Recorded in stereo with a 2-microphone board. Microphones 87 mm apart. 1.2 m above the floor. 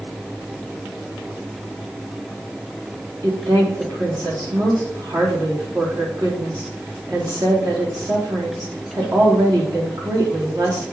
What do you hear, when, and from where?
3.2 s a woman speaking: 45° right (ahead or behind), 3 m